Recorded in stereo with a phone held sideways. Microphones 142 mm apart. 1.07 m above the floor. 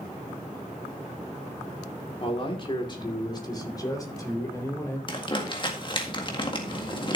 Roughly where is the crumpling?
Left.